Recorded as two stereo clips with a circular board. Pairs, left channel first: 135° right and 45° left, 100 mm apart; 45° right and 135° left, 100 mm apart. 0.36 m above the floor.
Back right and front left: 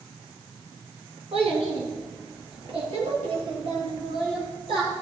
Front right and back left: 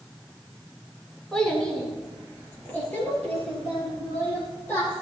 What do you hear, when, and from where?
1.3 s a child speaking: 40° left, 2.5 m; by 4.9 s 25° left, 7.5 m